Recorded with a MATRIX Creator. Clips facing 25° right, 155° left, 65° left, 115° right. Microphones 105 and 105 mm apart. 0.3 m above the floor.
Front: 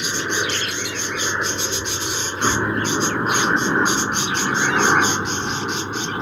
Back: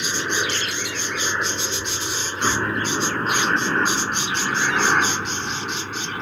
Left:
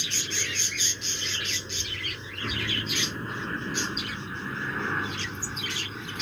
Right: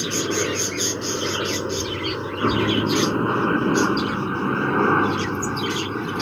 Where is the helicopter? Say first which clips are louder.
Front 1 dB, right 15 dB; 105° right; by 6.2 s 90° right.